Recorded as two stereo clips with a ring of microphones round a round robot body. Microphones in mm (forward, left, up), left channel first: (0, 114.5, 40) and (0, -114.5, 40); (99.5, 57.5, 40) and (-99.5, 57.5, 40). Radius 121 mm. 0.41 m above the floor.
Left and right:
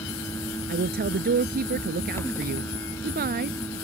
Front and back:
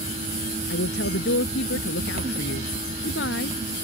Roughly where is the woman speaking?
Ahead right.